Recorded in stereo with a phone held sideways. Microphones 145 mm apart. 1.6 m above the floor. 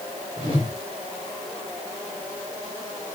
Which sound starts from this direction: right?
A whoosh, at 0.4 s.